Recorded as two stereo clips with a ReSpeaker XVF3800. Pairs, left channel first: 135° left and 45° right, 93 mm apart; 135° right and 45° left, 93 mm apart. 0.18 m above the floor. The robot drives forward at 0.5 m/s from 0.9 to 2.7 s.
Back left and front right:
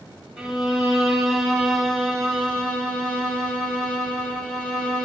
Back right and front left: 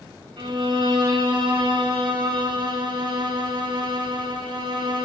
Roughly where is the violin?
Ahead left.